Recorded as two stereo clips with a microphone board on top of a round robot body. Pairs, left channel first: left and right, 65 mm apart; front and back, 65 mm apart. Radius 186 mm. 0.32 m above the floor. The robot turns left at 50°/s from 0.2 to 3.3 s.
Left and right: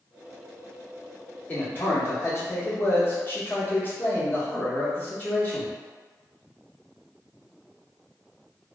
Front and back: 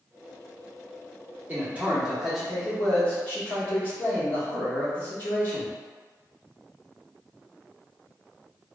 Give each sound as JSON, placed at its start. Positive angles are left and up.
{"t": 1.5, "sound": "a man speaking", "azimuth_deg": 140, "distance_m": 1.5}